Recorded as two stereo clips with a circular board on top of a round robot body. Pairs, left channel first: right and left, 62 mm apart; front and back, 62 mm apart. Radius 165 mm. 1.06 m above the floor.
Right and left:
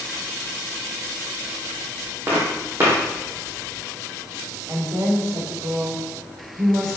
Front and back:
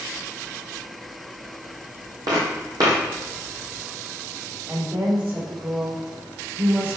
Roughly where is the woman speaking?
Behind left.